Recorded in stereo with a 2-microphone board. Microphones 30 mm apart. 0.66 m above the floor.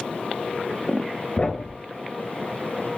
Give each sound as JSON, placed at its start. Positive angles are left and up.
{"t": 1.4, "sound": "a thud", "side_deg": 50, "distance_m": 1.0}